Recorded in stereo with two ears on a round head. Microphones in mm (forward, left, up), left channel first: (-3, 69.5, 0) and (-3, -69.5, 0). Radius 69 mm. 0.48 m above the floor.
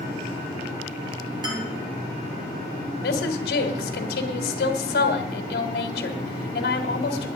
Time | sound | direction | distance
1.4 | a man speaking | 30° right (ahead or behind) | 8.5 m
3.0 | a woman speaking | 70° left (ahead or behind) | 2 m